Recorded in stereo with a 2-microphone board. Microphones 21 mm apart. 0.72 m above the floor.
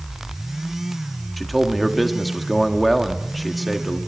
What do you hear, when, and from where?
1.4 s a man speaking: 5° right (ahead or behind), 1.6 m